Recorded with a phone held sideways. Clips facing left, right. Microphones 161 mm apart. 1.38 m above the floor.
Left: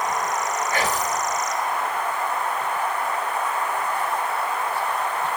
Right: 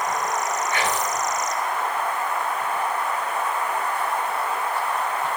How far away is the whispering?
About 0.9 m.